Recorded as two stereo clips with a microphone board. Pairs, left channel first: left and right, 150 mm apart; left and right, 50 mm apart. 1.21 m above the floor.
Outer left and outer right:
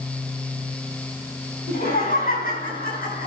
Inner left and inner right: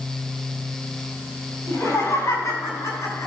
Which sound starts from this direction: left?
Laughter, at 1.7 s.